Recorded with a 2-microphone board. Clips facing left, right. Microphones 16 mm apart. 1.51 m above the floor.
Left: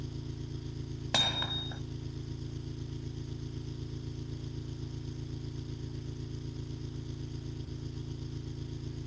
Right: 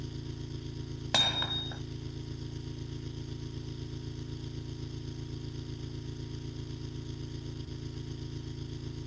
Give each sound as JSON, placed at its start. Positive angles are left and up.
{"t": 0.0, "sound": "an engine running", "side_deg": -25}
{"t": 1.1, "sound": "hammering", "side_deg": -10}